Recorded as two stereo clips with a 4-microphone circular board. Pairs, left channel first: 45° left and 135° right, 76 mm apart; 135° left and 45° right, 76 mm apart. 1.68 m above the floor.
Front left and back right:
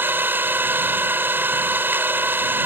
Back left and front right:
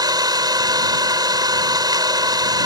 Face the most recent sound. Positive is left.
turn(degrees=-75)